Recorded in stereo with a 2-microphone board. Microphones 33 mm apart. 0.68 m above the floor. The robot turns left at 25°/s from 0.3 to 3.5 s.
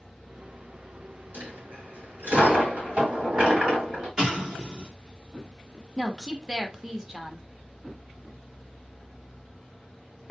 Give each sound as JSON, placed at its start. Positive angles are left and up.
{"t": 1.3, "sound": "a dropped coin", "azimuth_deg": -90, "distance_m": 3.0}
{"t": 4.2, "sound": "an explosion", "side_deg": -25, "distance_m": 1.7}
{"t": 6.0, "sound": "a woman speaking", "side_deg": -15, "distance_m": 0.8}